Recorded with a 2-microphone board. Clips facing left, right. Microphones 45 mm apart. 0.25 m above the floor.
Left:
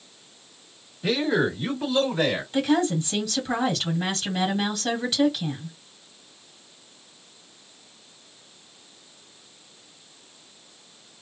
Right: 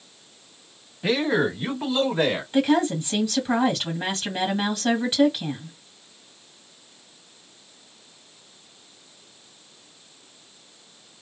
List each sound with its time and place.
1.0 s a man speaking: 30° right (ahead or behind), 1.7 m; by 2.4 s 15° right (ahead or behind), 1.9 m
2.5 s a woman speaking: 20° right (ahead or behind), 1.8 m